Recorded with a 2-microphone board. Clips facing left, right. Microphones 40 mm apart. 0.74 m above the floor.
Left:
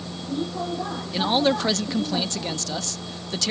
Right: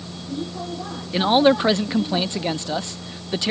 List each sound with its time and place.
0.0 s a vehicle: 15° left (ahead or behind)
1.1 s a man speaking: 20° right (ahead or behind)